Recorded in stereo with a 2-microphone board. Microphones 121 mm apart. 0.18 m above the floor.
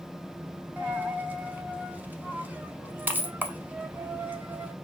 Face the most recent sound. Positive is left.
turn(degrees=-15)  # may be behind; listen again after turning